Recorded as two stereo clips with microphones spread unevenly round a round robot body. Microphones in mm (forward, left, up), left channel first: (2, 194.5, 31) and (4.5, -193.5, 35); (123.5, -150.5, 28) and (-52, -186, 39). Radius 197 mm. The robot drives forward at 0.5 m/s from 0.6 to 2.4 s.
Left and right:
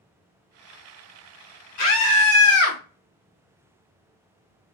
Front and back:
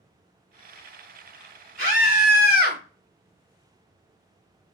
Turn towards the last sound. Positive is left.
turn(degrees=135)